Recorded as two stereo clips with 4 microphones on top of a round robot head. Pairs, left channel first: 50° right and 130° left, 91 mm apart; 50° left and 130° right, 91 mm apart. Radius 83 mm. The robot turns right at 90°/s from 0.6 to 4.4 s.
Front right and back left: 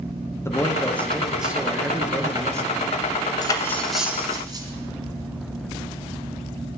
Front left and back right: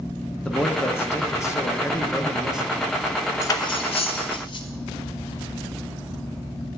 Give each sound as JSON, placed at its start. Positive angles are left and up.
{"t": 0.5, "sound": "a man speaking", "azimuth_deg": -20, "distance_m": 0.9}
{"t": 3.4, "sound": "cutlery clinking", "azimuth_deg": -10, "distance_m": 0.8}